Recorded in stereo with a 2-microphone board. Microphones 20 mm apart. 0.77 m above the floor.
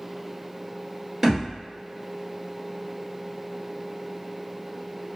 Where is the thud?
15° right (ahead or behind), 1.9 m.